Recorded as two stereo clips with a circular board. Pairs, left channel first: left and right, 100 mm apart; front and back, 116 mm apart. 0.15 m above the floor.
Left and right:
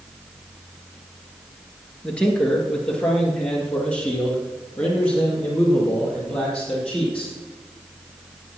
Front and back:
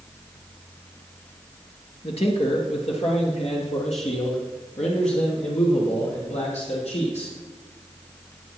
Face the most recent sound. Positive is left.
turn(degrees=10)